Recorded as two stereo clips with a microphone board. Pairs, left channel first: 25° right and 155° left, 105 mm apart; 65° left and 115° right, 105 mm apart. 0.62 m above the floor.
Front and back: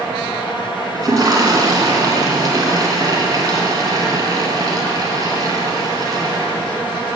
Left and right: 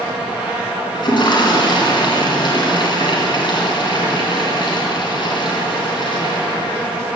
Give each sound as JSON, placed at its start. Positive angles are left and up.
{"t": 0.9, "sound": "a toilet flushing", "azimuth_deg": 105, "distance_m": 3.0}